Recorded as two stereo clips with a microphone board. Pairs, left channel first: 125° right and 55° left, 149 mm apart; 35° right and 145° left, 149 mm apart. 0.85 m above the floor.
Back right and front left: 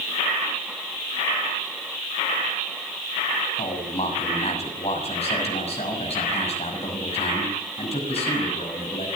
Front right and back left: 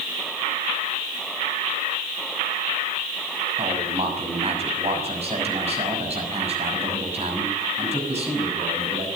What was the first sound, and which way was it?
A man speaking, 170° right.